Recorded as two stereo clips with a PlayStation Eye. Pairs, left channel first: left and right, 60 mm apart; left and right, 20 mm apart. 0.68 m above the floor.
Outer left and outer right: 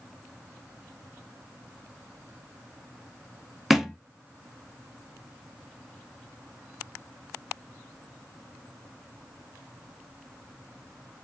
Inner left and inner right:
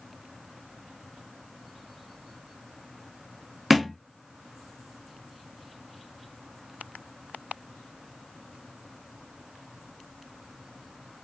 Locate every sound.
3.7 s a thud: centre (ahead or behind), 0.9 m